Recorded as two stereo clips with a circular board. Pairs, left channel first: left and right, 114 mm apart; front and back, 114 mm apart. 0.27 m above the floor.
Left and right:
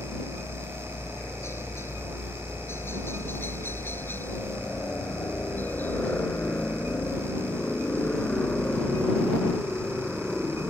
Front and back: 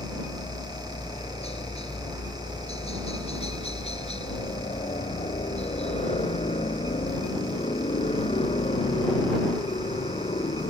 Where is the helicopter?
25° left; by 10.7 s 5° left.